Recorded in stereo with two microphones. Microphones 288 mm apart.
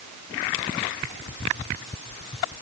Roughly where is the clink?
No clink in this recording.